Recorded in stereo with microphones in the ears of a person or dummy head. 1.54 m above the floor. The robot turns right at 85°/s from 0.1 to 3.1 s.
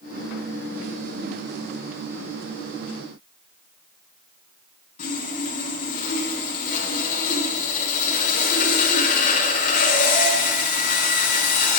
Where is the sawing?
45° left (ahead or behind), 3.5 m.